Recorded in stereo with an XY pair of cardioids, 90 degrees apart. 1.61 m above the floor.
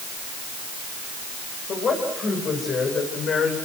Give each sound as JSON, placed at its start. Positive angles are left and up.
{"t": 1.7, "sound": "a woman speaking", "azimuth_deg": 55, "distance_m": 8.5}